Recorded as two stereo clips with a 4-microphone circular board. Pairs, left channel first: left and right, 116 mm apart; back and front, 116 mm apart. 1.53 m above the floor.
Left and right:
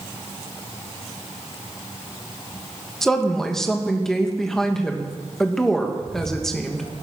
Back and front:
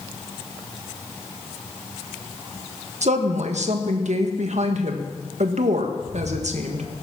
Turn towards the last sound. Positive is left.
turn(degrees=-70)